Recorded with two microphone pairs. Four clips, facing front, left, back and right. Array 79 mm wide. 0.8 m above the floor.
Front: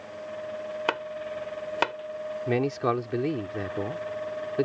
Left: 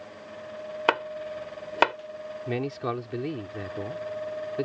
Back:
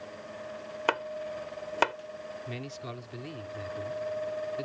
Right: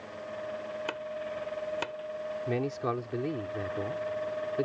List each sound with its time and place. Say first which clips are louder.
0.9 s chopping: left 8 dB, back 2 dB; 95° left
2.5 s a man speaking: left 2 dB, front 14 dB; 5° left